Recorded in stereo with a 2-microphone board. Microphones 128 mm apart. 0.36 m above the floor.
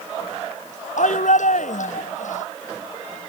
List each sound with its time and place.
1.0 s a shout: 75° left (ahead or behind)